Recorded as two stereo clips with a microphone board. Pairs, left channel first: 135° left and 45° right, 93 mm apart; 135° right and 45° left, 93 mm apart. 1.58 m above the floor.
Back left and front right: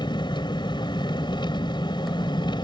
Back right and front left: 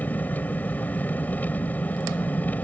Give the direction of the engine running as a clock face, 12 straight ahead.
7 o'clock.